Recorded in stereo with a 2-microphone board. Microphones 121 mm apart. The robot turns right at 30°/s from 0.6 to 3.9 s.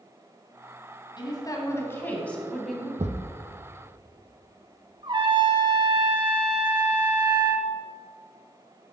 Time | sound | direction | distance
1.2 | a woman speaking | 135° left | 2 m
3.0 | a thud | 70° right (ahead or behind) | 1.0 m
5.0 | a trumpet | 40° right (ahead or behind) | 1.7 m